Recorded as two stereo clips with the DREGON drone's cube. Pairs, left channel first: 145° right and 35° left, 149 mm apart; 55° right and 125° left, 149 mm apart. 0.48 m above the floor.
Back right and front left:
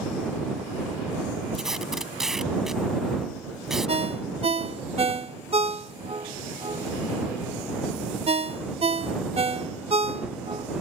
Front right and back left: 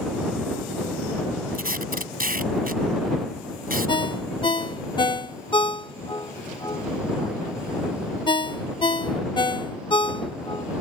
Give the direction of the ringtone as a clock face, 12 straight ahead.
12 o'clock.